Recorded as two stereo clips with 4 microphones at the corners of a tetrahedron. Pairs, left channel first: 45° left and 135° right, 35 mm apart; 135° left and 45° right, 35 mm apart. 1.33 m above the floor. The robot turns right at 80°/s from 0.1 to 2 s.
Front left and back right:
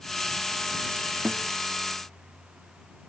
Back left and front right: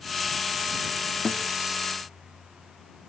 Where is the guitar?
145° right; by 1.5 s 130° right.